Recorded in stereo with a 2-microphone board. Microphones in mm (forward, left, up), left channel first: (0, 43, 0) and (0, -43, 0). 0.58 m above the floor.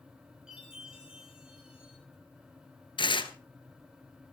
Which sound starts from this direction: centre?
A chime, at 0.5 s.